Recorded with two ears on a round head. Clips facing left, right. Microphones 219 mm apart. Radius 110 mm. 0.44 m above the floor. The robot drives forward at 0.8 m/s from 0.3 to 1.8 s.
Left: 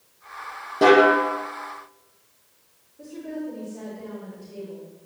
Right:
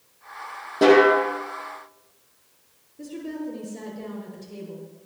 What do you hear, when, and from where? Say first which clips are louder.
0.8 s a snare drum: right 1 dB; centre (ahead or behind), 6.5 m
3.0 s a woman speaking: right 1 dB; 35° right (ahead or behind), 9 m